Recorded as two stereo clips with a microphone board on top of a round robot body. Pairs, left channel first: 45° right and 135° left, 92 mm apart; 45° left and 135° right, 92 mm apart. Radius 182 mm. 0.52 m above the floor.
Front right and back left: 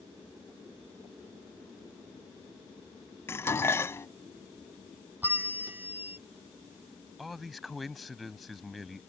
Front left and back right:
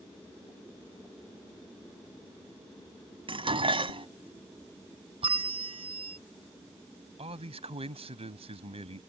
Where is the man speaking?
135° right.